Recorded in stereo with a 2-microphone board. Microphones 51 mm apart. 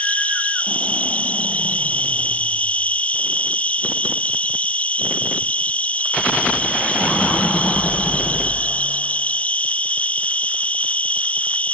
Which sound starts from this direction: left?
An insect, at 0.0 s.